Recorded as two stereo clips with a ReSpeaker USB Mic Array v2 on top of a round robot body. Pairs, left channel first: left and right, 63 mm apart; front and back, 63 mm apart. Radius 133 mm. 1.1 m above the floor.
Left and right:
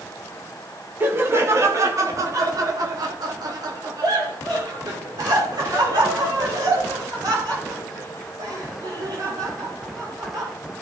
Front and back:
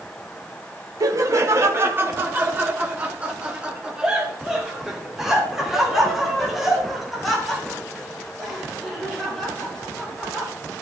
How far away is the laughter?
About 1.5 m.